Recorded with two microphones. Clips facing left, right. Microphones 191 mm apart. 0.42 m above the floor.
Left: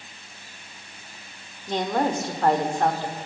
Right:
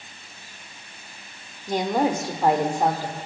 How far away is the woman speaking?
About 0.9 m.